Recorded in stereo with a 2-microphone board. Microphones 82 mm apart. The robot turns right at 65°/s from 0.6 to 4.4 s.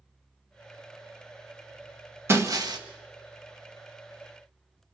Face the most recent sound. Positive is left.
turn(degrees=-10)